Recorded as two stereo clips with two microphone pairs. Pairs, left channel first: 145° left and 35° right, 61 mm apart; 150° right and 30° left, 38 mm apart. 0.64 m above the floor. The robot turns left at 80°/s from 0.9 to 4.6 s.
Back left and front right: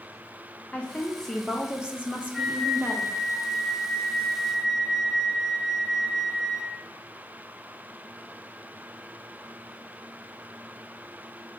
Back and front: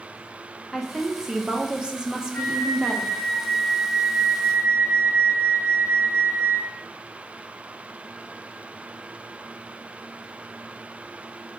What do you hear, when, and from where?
0.7 s a woman speaking: 100° left, 0.7 m; by 3.1 s 80° right, 0.7 m
2.3 s a flute: 125° right, 0.6 m; by 6.8 s 55° left, 0.6 m